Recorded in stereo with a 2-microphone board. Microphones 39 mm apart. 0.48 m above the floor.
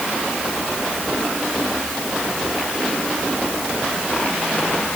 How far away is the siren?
I don't hear a siren.